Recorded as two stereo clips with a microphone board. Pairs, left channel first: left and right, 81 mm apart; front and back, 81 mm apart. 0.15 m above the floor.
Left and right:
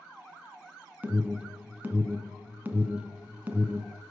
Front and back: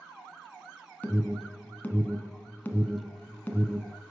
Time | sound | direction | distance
1.0 | an alarm | 45° right | 1.9 m